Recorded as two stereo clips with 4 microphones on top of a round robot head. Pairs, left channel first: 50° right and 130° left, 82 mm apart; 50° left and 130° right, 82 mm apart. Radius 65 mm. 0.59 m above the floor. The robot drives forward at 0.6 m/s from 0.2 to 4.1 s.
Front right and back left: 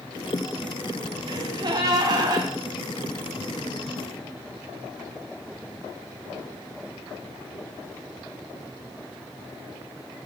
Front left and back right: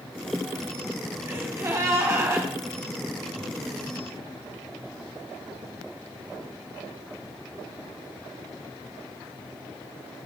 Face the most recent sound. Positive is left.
turn(degrees=175)